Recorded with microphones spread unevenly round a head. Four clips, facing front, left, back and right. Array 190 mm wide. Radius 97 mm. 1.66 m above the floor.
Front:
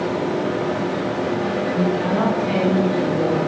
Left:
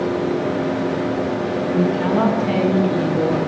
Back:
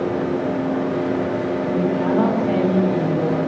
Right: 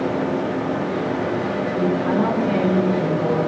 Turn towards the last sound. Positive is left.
turn(degrees=65)